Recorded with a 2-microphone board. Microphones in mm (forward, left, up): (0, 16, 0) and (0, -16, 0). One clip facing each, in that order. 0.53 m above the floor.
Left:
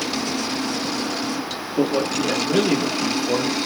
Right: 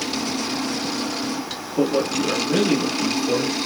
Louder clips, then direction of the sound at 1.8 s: Even; 15° left (ahead or behind).